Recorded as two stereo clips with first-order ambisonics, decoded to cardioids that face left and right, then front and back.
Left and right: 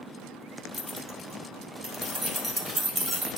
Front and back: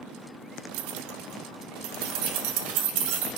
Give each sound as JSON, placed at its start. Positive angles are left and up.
{"t": 0.7, "sound": "keys jangling", "azimuth_deg": 170, "distance_m": 1.0}